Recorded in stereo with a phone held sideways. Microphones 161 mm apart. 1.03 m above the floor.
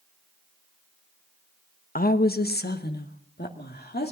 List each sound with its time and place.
1.9 s a woman speaking: 60° left (ahead or behind), 0.7 m; by 4.1 s 80° left, 2 m